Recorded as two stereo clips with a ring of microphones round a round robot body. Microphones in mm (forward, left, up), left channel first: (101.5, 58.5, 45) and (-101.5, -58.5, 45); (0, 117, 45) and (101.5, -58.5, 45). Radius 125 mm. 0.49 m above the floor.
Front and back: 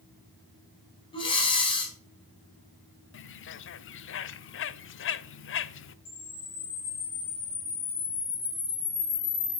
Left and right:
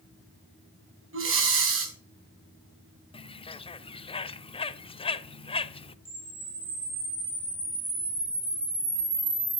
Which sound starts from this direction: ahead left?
A bird, at 3.1 s.